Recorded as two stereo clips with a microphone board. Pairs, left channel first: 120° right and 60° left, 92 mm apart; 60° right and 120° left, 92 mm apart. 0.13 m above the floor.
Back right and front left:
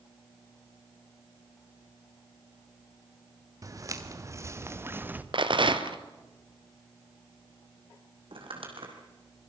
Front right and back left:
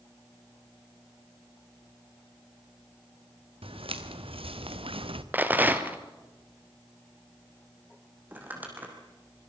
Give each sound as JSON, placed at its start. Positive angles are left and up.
{"t": 3.6, "sound": "footsteps", "azimuth_deg": 110, "distance_m": 3.0}
{"t": 5.3, "sound": "a rattle", "azimuth_deg": 50, "distance_m": 1.4}
{"t": 8.3, "sound": "crumpling", "azimuth_deg": 50, "distance_m": 4.0}